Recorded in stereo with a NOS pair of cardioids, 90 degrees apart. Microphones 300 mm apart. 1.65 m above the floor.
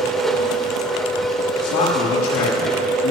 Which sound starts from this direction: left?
A man speaking, at 1.6 s.